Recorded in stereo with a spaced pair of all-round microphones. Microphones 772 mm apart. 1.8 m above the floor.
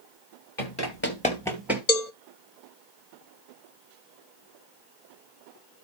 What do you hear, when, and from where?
0.6 s running footsteps: 25° left (ahead or behind), 1.9 m; by 1.8 s 5° right (ahead or behind), 2.0 m
1.9 s a cowbell: 55° left (ahead or behind), 0.9 m